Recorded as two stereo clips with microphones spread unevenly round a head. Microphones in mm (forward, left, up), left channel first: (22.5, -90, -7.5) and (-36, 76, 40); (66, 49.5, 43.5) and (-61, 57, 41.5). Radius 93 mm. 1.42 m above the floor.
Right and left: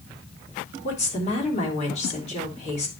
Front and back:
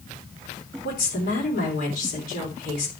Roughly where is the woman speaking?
Ahead.